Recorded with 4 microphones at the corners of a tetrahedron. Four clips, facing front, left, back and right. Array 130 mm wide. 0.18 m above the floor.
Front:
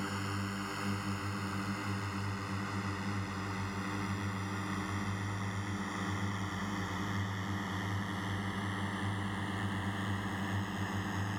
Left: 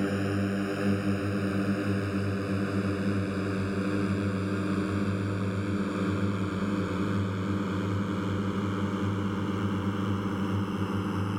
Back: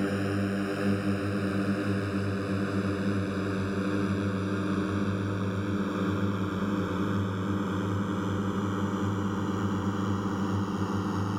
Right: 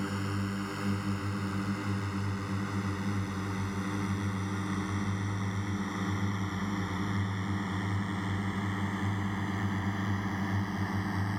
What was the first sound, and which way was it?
A drone, 135° left.